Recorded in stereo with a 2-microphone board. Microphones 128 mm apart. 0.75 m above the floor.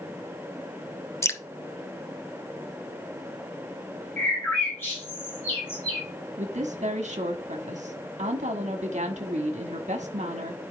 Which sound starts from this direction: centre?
A bird, at 4.2 s.